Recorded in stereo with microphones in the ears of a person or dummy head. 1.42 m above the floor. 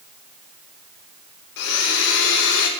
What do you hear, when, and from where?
1.6 s a blender: 75° left (ahead or behind), 1.1 m